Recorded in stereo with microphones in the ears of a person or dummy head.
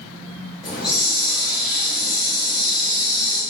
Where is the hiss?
Centre (ahead or behind), 0.9 m.